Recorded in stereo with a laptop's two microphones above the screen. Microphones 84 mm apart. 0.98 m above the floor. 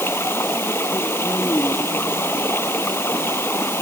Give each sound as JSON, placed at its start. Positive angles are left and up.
{"t": 0.0, "sound": "running water", "side_deg": 30}